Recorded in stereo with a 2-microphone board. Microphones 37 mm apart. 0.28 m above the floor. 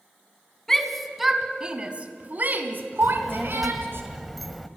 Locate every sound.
0.7 s a shout: 10° left (ahead or behind), 2.5 m; by 4.0 s 70° right (ahead or behind), 3.5 m
3.0 s a child speaking: centre (ahead or behind), 0.9 m